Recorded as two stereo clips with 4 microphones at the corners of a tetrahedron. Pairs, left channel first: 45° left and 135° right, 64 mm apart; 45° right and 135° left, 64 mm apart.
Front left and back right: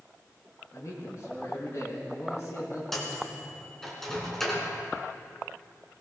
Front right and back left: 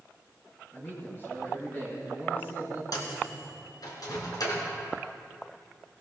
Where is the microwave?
40° right, 3 m.